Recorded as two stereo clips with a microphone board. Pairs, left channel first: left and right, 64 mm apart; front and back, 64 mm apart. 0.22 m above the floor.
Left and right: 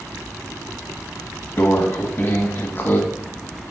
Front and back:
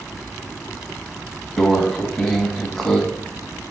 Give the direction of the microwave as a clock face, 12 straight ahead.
9 o'clock.